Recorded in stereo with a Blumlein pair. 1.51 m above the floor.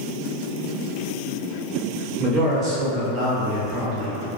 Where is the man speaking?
20° right, 1.1 m.